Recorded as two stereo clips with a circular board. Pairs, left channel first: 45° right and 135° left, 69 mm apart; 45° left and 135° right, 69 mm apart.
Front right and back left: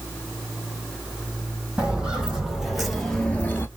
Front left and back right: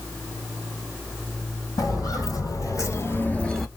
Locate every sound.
1.8 s footsteps: 60° left, 2.5 m; by 3.7 s 45° right, 1.1 m